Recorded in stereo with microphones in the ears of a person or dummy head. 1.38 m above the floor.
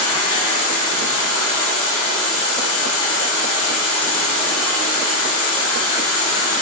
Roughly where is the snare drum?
No snare drum in this recording.